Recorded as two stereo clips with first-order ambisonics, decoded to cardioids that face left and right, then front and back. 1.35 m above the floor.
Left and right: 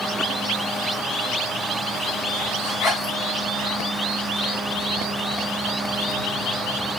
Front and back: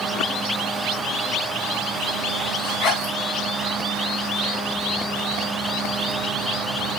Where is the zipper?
35° left, 4 m.